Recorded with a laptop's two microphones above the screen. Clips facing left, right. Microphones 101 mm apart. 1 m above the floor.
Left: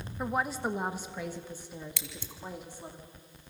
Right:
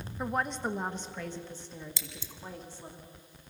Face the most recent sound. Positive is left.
turn(degrees=60)  # may be behind; listen again after turning